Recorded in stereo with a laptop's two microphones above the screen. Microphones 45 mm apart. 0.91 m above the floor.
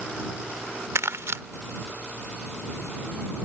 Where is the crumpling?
75° right (ahead or behind).